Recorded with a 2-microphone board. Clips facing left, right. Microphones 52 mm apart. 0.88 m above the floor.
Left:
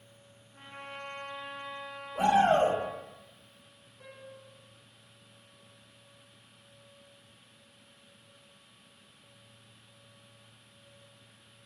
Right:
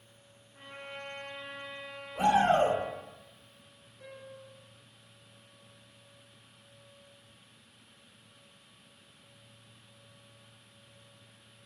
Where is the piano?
50° left (ahead or behind), 0.7 m.